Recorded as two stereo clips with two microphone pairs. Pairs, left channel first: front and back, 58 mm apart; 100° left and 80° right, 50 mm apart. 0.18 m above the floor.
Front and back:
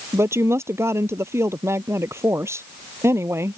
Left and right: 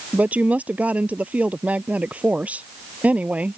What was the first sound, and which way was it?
A woman speaking, 140° right.